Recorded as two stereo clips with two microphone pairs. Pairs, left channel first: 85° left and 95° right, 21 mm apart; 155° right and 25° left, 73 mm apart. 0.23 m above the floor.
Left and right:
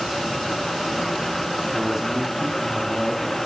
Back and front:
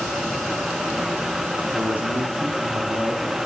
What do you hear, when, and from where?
1.7 s a man speaking: 45° right, 1.5 m; by 3.4 s 15° right, 3 m